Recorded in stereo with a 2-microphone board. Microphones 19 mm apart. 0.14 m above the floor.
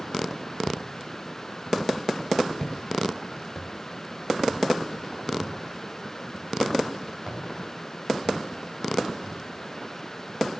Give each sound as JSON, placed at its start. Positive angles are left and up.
{"t": 0.7, "sound": "footsteps", "side_deg": 80, "distance_m": 2.0}